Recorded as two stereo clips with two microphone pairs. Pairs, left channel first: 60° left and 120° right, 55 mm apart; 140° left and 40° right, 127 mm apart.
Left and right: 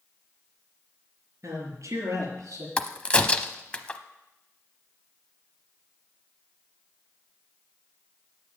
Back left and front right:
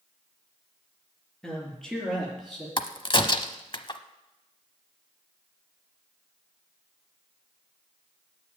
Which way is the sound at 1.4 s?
135° right.